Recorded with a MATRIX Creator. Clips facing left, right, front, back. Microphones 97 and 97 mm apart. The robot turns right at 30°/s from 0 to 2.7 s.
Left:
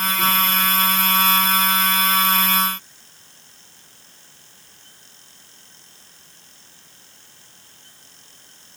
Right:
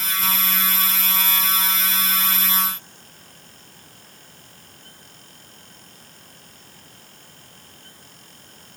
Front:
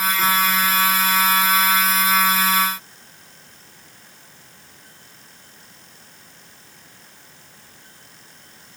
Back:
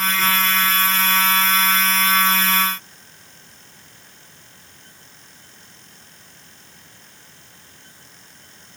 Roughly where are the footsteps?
No footsteps in this recording.